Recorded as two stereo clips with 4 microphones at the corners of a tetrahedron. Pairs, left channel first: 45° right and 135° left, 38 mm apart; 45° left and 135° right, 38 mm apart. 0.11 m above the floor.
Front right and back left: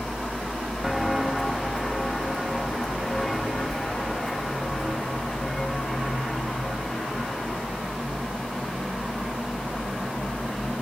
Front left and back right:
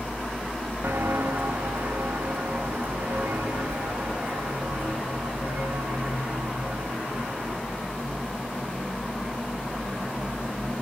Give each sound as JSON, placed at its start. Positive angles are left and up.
{"t": 0.8, "sound": "footsteps", "azimuth_deg": -140, "distance_m": 1.9}